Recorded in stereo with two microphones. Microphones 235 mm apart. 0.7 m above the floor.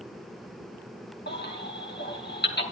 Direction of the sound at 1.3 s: 45° left (ahead or behind).